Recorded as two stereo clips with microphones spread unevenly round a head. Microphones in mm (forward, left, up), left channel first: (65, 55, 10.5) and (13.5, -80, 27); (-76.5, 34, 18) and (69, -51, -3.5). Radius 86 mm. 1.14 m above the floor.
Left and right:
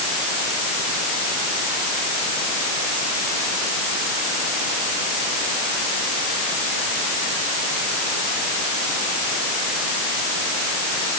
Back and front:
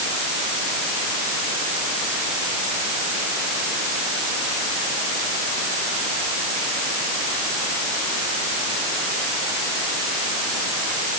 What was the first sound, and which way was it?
Only background noise.